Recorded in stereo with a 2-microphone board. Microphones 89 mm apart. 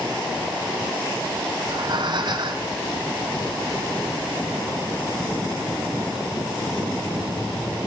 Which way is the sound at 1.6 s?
55° right (ahead or behind).